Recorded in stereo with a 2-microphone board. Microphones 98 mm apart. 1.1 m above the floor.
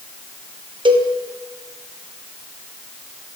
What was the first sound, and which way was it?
A cowbell, 55° right (ahead or behind).